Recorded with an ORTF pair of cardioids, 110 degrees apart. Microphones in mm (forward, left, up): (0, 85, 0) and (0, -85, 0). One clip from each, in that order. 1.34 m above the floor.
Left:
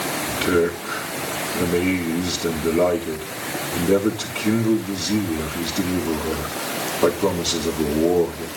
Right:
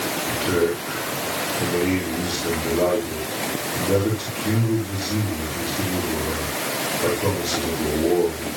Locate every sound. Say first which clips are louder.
0.3 s a man speaking: left 2 dB; 50° left, 3.5 m